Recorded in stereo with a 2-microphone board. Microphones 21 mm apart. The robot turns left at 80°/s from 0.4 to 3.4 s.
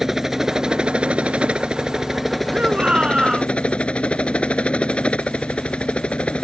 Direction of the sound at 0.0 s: 20° right.